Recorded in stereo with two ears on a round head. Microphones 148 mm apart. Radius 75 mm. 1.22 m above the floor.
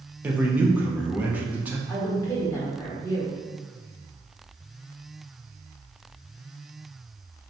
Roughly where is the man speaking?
Centre.